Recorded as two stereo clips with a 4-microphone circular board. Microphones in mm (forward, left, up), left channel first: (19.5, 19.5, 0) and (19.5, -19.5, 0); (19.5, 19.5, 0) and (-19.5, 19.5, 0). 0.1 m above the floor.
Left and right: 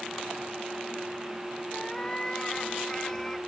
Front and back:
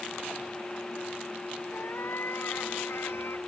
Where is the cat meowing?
20° left; by 3.4 s 15° left.